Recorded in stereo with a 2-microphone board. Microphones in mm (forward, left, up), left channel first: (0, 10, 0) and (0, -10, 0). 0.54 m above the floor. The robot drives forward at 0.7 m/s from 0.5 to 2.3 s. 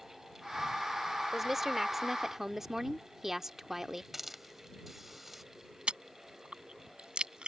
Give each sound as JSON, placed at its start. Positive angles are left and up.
{"t": 1.3, "sound": "a woman speaking", "side_deg": -10}
{"t": 4.1, "sound": "a hiss", "side_deg": -10}
{"t": 5.9, "sound": "chewing", "side_deg": -65}